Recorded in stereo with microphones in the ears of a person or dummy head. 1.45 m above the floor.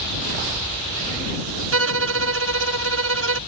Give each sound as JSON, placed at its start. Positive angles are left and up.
{"t": 1.7, "sound": "a violin", "side_deg": -80}